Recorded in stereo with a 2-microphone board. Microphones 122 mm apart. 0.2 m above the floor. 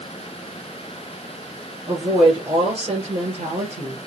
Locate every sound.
1.9 s a woman speaking: 45° right (ahead or behind), 3.5 m; by 4.0 s 60° right (ahead or behind), 3.5 m